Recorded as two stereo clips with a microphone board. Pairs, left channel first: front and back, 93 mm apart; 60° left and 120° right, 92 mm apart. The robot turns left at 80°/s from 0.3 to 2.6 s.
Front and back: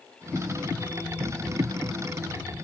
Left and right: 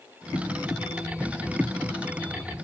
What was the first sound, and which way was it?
Only background noise.